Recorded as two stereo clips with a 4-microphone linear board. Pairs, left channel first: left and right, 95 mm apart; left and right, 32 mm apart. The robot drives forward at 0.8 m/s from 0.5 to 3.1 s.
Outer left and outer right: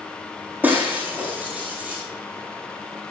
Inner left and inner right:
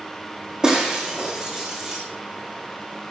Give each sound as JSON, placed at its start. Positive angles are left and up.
{"t": 0.6, "sound": "breaking glass", "side_deg": -20, "distance_m": 5.5}